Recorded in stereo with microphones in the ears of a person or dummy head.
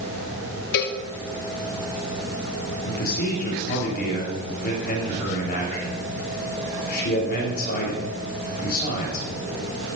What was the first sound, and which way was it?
A cowbell, 60° left (ahead or behind).